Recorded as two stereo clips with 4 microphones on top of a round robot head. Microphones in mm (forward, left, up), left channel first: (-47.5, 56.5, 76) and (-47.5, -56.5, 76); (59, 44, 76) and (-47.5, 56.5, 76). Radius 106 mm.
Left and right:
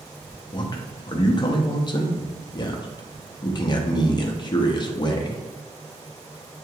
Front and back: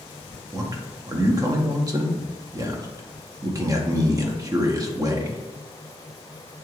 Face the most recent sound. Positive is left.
turn(degrees=125)